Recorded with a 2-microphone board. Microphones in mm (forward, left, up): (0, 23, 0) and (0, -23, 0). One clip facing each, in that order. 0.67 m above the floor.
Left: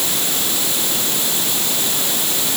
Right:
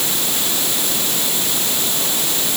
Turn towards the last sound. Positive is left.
No sound to turn to.